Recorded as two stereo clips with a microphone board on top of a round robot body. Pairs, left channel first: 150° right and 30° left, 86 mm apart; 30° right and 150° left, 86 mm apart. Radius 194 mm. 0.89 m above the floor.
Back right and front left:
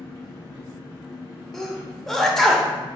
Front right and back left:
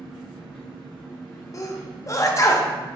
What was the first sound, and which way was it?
An engine running, 165° left.